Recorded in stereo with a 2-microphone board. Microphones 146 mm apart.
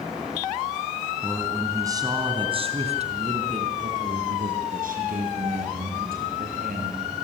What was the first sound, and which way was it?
A man speaking, 10° right (ahead or behind).